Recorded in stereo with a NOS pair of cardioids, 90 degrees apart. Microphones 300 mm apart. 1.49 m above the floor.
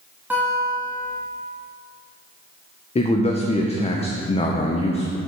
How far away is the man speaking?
About 0.7 m.